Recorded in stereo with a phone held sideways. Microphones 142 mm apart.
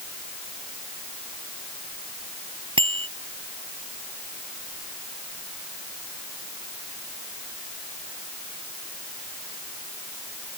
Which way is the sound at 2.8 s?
35° right (ahead or behind).